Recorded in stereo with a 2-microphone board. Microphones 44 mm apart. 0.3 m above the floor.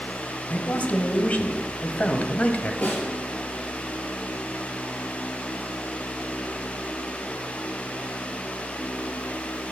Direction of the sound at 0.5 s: 35° left (ahead or behind).